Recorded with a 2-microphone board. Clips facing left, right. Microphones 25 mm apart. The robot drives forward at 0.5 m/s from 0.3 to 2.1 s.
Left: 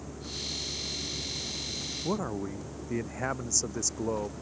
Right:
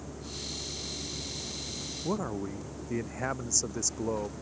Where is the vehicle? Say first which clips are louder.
Left 2 dB; centre (ahead or behind).